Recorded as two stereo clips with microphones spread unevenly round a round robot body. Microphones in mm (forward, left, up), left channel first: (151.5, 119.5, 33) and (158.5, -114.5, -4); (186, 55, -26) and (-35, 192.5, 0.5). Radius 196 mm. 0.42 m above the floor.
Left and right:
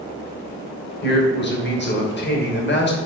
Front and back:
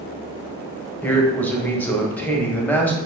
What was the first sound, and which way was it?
A man speaking, 50° left.